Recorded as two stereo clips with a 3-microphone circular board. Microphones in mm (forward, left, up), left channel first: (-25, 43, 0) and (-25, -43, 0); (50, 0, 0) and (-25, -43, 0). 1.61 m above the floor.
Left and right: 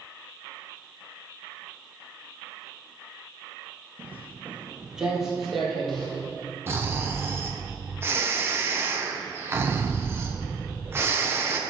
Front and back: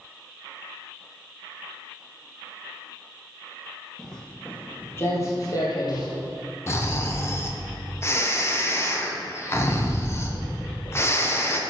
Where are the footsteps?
55° right, 1.8 m; by 6.1 s 10° left, 3 m.